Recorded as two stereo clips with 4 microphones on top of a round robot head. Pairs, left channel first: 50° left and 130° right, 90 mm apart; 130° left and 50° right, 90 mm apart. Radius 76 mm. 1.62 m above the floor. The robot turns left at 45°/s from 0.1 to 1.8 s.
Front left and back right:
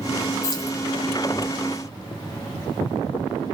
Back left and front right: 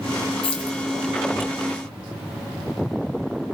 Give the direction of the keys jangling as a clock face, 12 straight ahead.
8 o'clock.